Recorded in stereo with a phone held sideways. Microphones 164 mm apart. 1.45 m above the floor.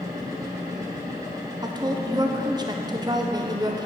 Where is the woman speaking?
25° right (ahead or behind), 0.9 m.